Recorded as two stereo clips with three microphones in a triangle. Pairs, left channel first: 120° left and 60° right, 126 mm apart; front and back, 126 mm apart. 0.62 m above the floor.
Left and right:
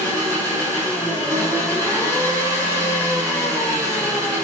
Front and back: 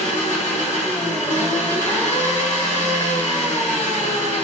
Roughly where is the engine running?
Ahead.